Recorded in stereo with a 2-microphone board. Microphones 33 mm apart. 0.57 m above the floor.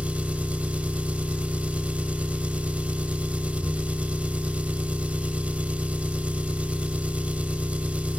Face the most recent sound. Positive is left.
turn(degrees=-40)  # may be behind; listen again after turning